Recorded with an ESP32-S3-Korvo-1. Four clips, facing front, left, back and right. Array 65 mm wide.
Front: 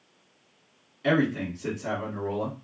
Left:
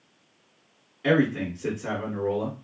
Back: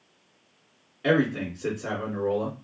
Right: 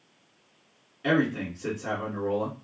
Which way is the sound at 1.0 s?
175° right.